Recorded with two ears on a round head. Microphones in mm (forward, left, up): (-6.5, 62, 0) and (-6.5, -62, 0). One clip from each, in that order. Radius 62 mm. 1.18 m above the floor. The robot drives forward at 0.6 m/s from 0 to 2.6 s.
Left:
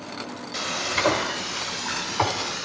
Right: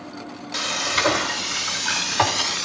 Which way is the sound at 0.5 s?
30° right (ahead or behind).